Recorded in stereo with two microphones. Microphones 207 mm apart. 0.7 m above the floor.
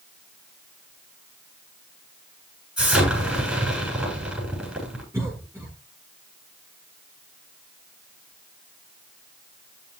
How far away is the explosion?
About 7 m.